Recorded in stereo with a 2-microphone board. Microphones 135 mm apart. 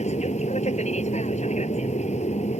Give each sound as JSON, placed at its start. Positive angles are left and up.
{"t": 0.0, "sound": "an aircraft", "side_deg": 60}